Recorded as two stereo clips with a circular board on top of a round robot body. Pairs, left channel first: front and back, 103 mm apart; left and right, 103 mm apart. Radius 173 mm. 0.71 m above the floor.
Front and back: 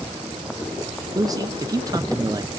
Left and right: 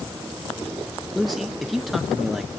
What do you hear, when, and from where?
1.1 s a man speaking: straight behind, 0.9 m